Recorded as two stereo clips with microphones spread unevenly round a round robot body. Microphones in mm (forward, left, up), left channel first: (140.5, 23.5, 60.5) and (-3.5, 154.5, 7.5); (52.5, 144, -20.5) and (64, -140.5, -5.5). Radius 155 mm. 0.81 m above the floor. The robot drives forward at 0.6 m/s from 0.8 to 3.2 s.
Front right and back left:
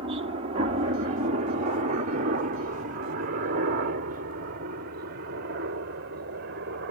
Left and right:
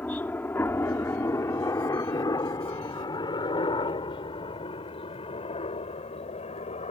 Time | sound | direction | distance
0.0 | a helicopter | 175° left | ?